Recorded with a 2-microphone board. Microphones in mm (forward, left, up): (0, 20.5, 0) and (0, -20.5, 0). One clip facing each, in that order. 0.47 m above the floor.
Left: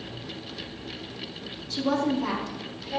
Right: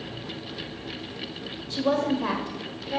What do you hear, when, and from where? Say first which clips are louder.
1.7 s a woman speaking: right 1 dB; 35° right (ahead or behind), 2 m; by 3.0 s 30° right (ahead or behind), 1.4 m